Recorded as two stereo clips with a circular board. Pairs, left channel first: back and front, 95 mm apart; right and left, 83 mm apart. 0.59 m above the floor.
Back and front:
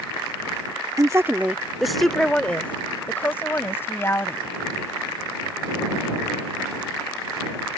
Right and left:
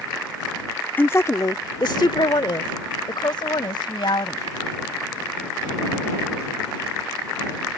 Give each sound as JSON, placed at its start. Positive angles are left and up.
{"t": 1.0, "sound": "a woman speaking", "azimuth_deg": -30}